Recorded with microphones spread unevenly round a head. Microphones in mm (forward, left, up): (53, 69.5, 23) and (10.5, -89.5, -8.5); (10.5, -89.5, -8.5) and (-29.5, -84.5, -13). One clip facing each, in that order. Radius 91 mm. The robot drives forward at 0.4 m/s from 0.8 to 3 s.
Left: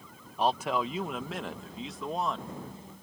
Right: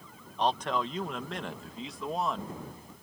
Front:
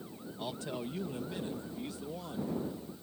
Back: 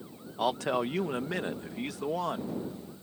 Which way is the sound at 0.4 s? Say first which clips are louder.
Left 1 dB, back 11 dB; 155° left.